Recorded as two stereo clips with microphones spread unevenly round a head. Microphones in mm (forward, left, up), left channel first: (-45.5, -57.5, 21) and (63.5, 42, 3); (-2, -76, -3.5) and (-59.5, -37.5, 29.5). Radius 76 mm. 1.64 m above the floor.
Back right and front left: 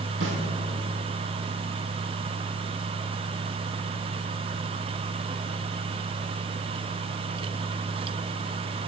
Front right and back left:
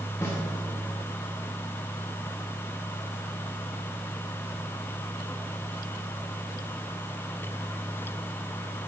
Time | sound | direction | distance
0.2 | a snare drum | 50° left | 1.2 m